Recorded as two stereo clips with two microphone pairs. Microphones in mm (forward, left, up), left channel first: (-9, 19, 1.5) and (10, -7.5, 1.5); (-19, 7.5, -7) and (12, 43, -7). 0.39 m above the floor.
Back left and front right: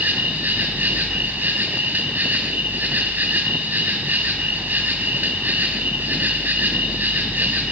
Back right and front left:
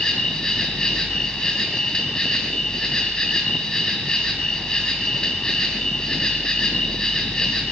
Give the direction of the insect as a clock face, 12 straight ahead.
2 o'clock.